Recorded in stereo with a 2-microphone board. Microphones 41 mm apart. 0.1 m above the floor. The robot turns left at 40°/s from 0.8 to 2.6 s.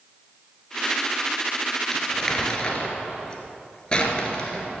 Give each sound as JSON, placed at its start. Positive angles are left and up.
{"t": 1.9, "sound": "crumpling", "side_deg": 5, "distance_m": 1.9}